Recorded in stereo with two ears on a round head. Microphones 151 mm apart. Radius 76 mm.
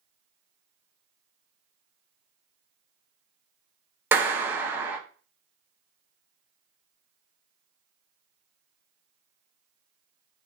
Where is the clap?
10° right (ahead or behind), 0.8 m.